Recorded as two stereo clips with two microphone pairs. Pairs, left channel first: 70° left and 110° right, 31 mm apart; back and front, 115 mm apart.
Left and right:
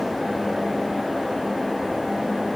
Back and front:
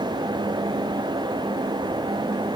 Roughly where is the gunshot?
I don't hear a gunshot.